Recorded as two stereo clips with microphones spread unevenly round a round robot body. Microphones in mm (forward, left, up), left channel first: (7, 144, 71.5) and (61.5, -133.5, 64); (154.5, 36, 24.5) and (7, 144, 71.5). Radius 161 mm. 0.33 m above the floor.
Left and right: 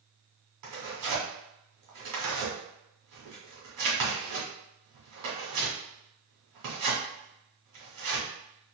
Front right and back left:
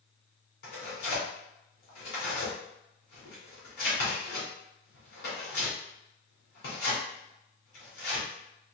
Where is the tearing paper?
60° right, 1.9 m.